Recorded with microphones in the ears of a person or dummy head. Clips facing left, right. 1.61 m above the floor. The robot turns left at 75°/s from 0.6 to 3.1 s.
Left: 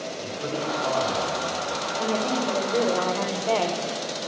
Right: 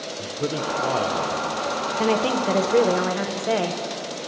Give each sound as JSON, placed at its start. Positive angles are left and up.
{"t": 0.2, "sound": "a man speaking", "azimuth_deg": -95, "distance_m": 0.9}
{"t": 2.0, "sound": "a woman speaking", "azimuth_deg": -75, "distance_m": 0.6}